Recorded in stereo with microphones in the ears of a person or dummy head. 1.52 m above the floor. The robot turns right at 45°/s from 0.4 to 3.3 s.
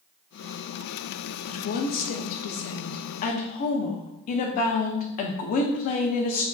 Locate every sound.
1.4 s a woman speaking: 50° left, 0.5 m; by 6.4 s 130° left, 0.5 m